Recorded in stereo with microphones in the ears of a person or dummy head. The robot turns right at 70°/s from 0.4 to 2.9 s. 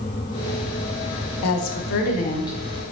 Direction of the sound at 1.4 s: 85° left.